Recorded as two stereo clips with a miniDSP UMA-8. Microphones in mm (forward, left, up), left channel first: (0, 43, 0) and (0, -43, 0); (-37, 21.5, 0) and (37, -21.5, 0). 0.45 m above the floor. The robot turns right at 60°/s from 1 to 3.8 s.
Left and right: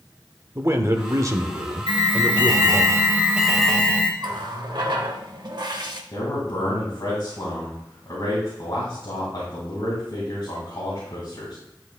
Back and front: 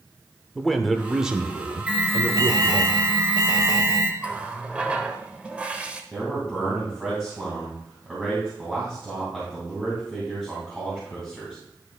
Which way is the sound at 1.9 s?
100° right.